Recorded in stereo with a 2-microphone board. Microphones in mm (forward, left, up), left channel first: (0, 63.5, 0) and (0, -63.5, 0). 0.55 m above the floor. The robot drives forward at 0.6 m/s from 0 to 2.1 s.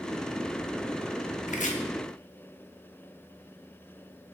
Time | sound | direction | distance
1.5 | chopping | 75° left (ahead or behind) | 0.5 m